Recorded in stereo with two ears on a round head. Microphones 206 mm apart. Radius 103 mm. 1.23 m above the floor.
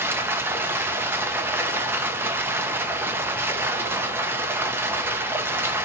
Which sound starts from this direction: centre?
Running water, at 0.0 s.